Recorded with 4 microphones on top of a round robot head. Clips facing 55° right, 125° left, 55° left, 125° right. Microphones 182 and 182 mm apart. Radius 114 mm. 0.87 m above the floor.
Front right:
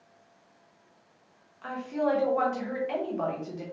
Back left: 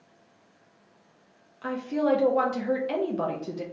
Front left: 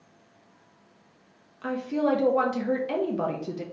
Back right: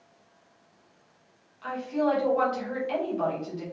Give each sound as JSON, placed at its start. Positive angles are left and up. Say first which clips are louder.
{"t": 1.6, "sound": "a woman speaking", "louder": "back left 3 dB, front left 1 dB", "azimuth_deg": 80, "distance_m": 0.7}